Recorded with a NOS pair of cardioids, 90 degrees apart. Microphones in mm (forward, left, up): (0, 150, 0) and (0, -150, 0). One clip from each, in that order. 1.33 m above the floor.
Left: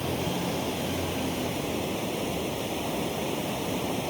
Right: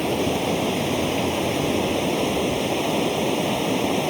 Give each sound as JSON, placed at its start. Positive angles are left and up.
{"t": 0.0, "sound": "running water", "azimuth_deg": -55}